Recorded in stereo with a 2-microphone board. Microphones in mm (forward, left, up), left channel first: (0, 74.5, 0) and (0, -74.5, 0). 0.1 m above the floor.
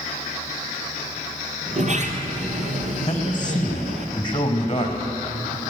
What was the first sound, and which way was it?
A sliding door, 55° right (ahead or behind).